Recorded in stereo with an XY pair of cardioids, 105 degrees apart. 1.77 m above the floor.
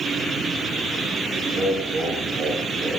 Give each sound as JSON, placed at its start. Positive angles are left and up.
{"t": 1.5, "sound": "laughter", "azimuth_deg": -50, "distance_m": 7.0}